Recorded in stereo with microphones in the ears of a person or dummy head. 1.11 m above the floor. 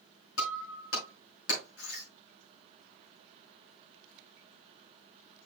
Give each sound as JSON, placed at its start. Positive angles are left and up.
{"t": 0.4, "sound": "breaking glass", "side_deg": 80, "distance_m": 4.5}